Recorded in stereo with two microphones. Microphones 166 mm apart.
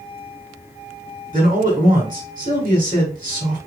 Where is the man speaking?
55° right (ahead or behind), 4 m.